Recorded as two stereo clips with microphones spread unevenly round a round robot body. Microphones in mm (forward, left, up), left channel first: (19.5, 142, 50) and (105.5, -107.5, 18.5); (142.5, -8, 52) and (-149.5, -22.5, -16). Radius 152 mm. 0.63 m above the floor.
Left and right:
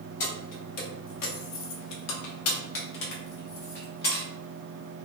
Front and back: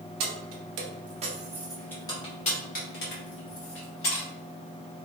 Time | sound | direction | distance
0.2 | keys jangling | 165° left | 0.9 m